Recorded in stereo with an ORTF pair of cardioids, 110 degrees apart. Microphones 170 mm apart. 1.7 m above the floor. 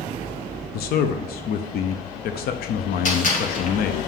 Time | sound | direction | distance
0.7 | a man speaking | 65° left | 0.8 m
3.0 | a gunshot | 50° left | 3 m